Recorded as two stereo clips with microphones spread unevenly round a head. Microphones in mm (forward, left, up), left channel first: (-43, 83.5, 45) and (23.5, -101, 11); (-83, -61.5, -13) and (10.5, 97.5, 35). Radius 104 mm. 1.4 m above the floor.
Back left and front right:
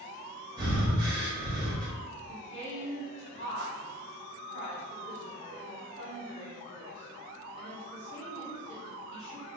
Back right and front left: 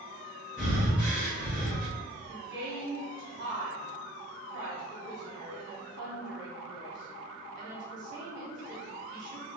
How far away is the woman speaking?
About 1.8 m.